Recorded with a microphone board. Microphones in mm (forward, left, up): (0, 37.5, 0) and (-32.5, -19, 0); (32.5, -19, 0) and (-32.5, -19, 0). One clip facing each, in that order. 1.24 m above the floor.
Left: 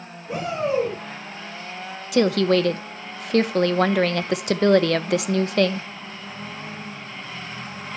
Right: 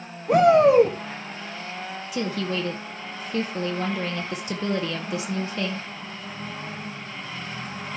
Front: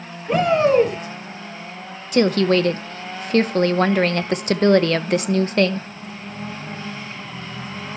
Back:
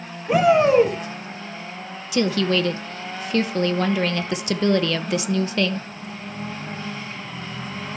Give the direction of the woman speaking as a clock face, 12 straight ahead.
11 o'clock.